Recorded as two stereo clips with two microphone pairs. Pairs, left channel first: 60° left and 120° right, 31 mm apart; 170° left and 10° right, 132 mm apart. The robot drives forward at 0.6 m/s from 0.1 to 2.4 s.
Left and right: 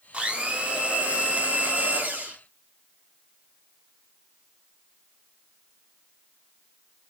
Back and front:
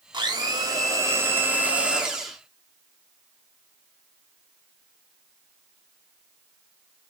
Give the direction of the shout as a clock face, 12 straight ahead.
No shout in this recording.